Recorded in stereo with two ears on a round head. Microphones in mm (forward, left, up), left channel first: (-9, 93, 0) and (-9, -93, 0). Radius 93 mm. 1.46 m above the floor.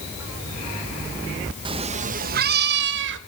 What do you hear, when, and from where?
1.6 s a cat meowing: 25° right (ahead or behind), 0.7 m; by 3.2 s 60° right (ahead or behind), 1.2 m